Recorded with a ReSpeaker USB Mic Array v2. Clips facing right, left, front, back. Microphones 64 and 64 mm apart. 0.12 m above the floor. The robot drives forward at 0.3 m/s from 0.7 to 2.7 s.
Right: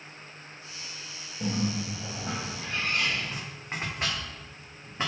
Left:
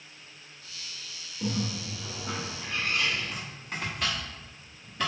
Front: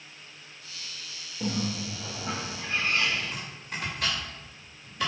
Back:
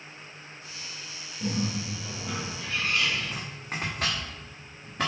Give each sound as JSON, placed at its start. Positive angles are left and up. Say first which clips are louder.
{"t": 1.4, "sound": "a bird", "louder": "right 2 dB, even", "azimuth_deg": -45, "distance_m": 1.8}
{"t": 3.2, "sound": "chopping", "louder": "right 1 dB, back 1 dB", "azimuth_deg": -150, "distance_m": 2.5}